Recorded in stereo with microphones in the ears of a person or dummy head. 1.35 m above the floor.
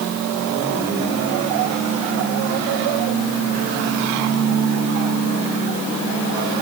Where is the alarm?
I don't hear an alarm.